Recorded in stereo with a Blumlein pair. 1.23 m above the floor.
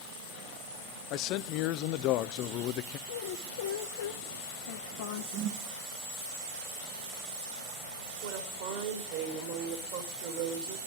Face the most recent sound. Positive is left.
turn(degrees=-50)